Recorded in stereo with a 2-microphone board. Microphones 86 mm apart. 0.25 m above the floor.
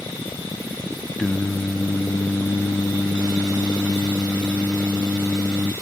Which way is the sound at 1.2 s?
10° left (ahead or behind).